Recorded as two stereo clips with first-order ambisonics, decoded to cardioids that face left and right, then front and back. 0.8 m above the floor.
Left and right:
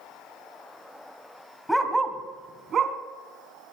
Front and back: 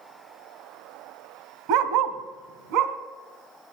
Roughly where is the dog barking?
Behind.